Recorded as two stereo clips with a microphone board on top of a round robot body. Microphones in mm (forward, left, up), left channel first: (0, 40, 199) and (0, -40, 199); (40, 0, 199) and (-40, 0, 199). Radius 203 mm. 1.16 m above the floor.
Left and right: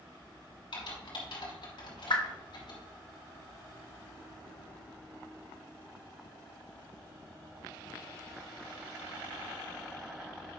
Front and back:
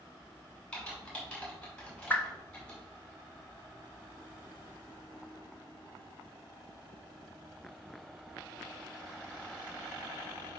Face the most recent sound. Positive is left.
turn(degrees=65)